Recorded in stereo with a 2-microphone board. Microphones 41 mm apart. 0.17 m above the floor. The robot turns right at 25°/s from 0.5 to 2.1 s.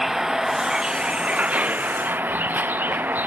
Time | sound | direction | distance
0.0 | a vehicle | 170° right | ?